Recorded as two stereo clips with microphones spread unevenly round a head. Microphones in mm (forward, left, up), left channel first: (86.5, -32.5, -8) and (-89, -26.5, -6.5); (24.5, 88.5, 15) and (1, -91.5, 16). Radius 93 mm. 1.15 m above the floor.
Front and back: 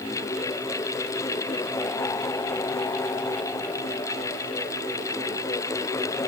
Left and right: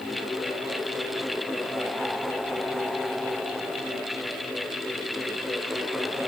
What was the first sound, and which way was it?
Only background noise.